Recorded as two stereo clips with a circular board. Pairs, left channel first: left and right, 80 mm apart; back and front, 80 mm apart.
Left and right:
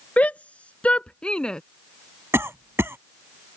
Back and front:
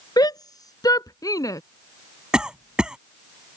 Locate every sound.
0.2 s a shout: 160° left; by 1.6 s 170° left
2.3 s a cough: 70° right